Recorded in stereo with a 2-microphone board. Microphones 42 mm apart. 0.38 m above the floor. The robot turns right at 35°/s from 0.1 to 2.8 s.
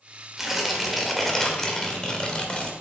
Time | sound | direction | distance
0.4 | tearing paper | 10° right (ahead or behind) | 1.2 m